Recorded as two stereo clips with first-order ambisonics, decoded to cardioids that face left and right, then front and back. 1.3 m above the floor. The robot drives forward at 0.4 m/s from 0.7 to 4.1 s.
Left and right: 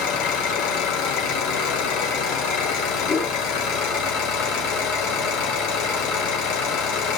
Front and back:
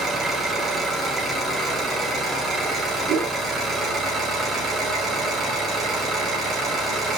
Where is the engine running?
105° left, 4.5 m; by 7.2 s 120° left, 5 m.